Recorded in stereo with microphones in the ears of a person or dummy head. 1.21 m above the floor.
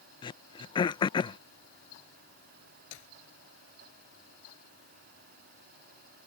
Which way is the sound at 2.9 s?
75° left (ahead or behind).